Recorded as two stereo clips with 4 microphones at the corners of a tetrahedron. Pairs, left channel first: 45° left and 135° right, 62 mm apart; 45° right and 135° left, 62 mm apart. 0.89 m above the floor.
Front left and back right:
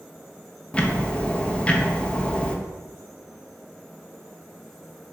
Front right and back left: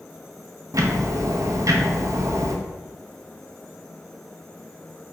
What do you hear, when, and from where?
0.7 s ticking: 115° left, 0.5 m